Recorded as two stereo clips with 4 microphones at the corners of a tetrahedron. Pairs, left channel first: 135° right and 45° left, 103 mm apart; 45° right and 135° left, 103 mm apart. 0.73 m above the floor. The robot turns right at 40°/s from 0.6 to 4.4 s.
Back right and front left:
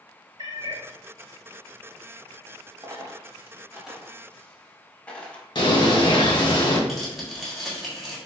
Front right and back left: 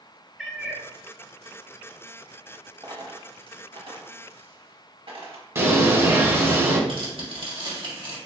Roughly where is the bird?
Behind.